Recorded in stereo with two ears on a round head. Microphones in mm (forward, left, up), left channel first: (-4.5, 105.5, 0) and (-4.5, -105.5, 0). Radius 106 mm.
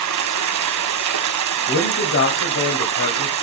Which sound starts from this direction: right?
Running water, at 0.0 s.